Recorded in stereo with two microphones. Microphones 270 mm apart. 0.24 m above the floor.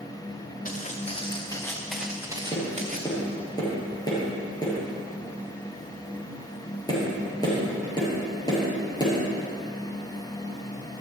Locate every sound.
0.7 s footsteps: 30° left (ahead or behind), 2 m; by 3.1 s 35° right (ahead or behind), 1.7 m
2.5 s tapping: 15° left (ahead or behind), 5.5 m